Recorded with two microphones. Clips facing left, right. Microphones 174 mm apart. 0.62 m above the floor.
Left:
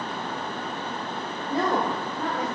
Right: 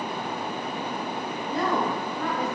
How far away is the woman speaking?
About 1.9 m.